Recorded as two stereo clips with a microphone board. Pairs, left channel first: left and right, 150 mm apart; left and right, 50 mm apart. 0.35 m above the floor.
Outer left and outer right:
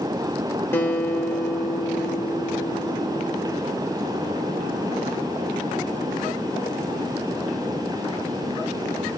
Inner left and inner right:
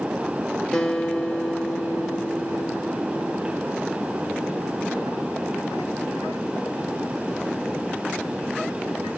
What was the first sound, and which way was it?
A guitar, 15° left (ahead or behind).